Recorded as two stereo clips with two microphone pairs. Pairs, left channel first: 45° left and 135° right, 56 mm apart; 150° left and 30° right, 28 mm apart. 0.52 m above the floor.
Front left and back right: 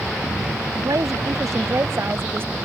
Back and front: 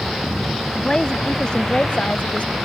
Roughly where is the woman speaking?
Behind right.